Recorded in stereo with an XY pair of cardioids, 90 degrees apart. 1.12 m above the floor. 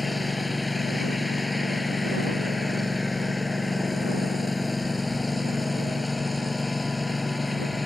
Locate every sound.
0.0 s a lawn mower: 20° left